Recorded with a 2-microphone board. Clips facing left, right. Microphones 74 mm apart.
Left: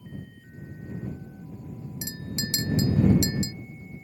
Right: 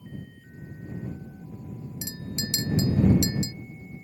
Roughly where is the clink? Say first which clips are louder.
Left 1 dB; left.